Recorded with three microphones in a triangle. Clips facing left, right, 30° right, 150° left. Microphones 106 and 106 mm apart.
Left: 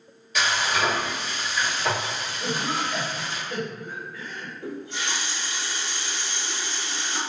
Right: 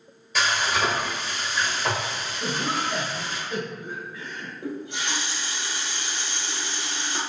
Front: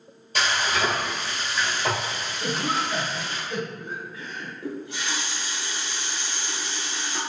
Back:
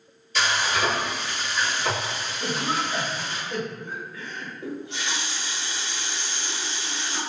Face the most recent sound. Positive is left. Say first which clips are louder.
# right 1 dB, even
turn(degrees=-155)